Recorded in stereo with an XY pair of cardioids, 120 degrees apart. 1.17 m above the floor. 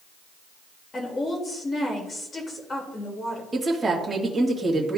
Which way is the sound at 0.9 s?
30° left.